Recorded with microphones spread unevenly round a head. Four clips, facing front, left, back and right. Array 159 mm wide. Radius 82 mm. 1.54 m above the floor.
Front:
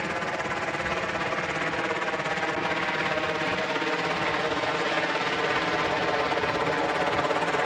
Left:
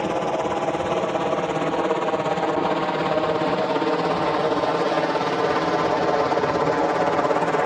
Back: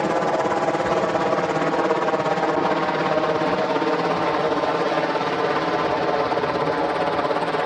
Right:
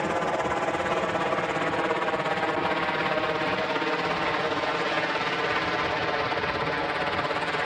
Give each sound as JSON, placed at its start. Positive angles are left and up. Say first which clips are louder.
{"t": 0.0, "sound": "a helicopter", "louder": "left 3 dB, back 10 dB", "azimuth_deg": 155}